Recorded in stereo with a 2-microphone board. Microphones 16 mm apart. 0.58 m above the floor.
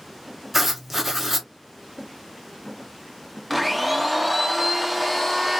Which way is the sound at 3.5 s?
5° right (ahead or behind).